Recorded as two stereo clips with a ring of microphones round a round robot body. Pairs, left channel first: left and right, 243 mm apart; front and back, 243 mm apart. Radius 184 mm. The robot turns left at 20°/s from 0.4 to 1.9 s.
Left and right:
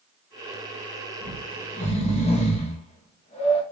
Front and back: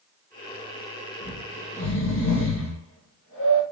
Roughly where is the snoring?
Ahead left.